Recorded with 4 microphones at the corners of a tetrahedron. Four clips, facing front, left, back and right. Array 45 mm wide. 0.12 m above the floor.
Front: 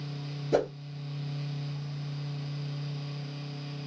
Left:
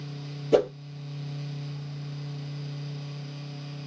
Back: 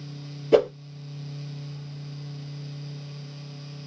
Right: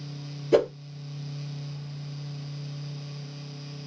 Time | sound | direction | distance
0.5 | a whoosh | 175° left | 1.4 m